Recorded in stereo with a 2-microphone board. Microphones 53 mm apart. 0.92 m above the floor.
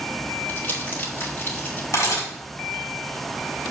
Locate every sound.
0.5 s crumpling: 40° left (ahead or behind), 2 m
1.9 s a camera shutter: 70° left (ahead or behind), 3.5 m